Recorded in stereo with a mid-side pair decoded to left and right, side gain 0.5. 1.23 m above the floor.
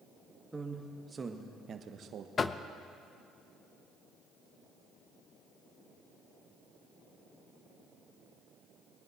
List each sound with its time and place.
0.5 s a man speaking: 20° right, 1.9 m; by 2.3 s 70° right, 1.1 m
2.4 s knocking: 35° left, 0.6 m